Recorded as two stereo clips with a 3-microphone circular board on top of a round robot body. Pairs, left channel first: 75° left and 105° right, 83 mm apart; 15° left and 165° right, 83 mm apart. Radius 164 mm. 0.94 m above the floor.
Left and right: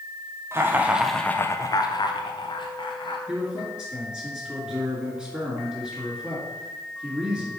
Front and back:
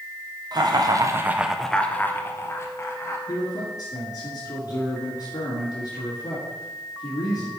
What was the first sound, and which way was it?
Laughter, 155° right.